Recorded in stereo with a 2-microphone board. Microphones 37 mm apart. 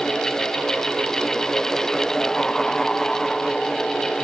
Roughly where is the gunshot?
I don't hear a gunshot.